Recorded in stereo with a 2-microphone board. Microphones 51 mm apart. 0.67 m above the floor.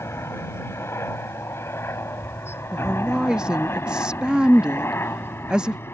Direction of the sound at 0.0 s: 65° left (ahead or behind).